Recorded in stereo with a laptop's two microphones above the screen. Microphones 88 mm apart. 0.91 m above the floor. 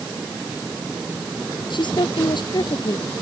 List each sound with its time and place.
1.7 s a woman speaking: 60° left (ahead or behind); by 3.2 s 55° left (ahead or behind)